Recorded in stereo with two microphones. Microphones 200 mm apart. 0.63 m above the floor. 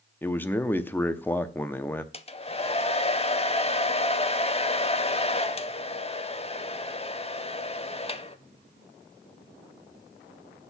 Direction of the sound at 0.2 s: 10° left (ahead or behind).